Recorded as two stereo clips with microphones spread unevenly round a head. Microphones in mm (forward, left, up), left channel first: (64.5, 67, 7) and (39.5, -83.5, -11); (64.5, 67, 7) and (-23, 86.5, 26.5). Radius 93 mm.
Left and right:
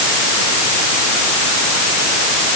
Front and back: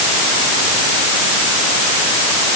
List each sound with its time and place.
Only background noise.